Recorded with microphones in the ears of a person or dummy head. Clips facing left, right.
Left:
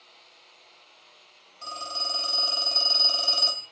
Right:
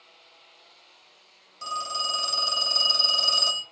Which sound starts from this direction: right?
A phone ringing, at 1.6 s.